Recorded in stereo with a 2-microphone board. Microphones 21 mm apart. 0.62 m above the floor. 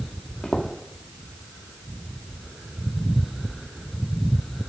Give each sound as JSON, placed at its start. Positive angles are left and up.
{"t": 0.4, "sound": "footsteps", "side_deg": 50, "distance_m": 1.5}